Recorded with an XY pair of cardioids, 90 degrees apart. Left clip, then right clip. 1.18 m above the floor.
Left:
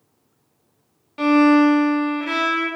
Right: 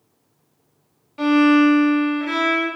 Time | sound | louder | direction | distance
1.2 | a violin | left 1 dB | 35° left | 0.9 m